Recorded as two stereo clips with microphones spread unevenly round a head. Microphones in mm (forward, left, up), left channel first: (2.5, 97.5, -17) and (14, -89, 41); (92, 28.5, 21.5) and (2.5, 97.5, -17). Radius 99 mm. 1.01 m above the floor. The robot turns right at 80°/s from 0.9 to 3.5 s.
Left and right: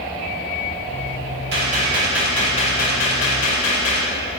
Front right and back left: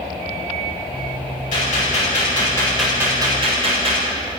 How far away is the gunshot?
About 2.5 m.